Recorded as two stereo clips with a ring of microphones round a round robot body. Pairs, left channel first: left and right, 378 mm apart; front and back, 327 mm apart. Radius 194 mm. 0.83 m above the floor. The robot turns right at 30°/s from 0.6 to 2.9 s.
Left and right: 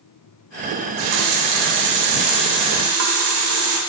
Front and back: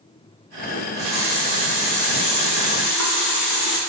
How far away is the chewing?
I don't hear chewing.